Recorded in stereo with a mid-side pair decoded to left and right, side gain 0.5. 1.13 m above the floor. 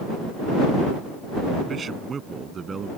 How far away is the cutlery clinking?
No cutlery clinking in this recording.